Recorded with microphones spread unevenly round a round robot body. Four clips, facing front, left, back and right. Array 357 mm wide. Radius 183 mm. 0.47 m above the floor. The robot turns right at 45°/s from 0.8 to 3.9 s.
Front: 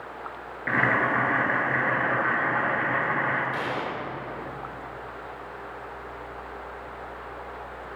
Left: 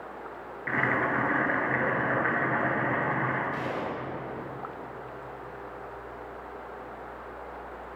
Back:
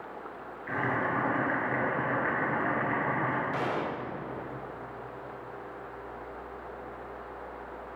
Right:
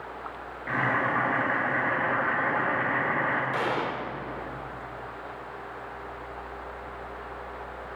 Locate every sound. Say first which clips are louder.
0.7 s boiling: right 1 dB, front 6 dB; 10° left, 3.5 m; by 3.4 s 125° left, 3.5 m
3.5 s a gunshot: right 4 dB, front 1 dB; 105° right, 1.2 m; by 4.0 s 90° right, 1.2 m